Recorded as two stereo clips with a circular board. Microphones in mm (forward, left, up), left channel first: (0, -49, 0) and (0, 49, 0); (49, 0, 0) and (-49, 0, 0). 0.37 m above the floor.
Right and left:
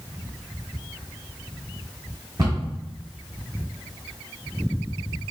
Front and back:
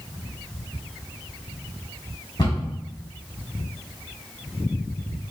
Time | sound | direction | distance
2.4 | a cupboard door | 45° left | 1.8 m